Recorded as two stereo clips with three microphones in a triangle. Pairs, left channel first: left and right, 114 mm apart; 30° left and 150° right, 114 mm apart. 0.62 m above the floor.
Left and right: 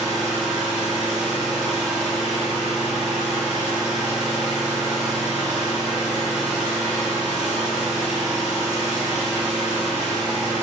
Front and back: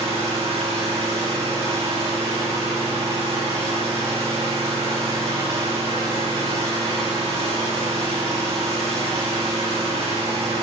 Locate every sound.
0.0 s an engine running: 175° right, 8 m